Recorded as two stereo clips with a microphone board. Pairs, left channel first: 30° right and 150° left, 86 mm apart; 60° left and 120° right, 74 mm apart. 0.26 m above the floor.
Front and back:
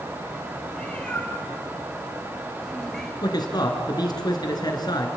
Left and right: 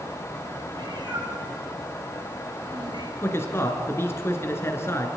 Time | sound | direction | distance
0.7 | a cat meowing | 110° right | 4.5 m
3.2 | a man speaking | 5° left | 3 m